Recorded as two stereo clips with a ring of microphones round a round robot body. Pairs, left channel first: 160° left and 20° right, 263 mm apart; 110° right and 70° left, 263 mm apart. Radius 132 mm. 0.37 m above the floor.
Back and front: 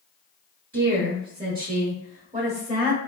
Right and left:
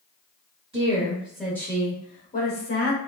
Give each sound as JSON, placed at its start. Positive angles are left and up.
{"t": 0.7, "sound": "a woman speaking", "azimuth_deg": 10, "distance_m": 1.0}